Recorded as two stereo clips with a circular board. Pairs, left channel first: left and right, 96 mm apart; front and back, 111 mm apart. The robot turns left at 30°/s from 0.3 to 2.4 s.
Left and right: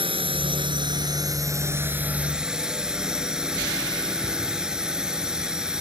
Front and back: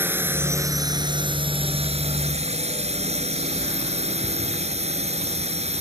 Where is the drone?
110° right; by 5.8 s 175° right.